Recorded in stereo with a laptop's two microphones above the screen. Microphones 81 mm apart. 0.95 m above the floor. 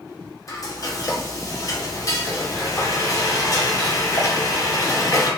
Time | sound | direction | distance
0.5 | frying | 45° left (ahead or behind) | 0.7 m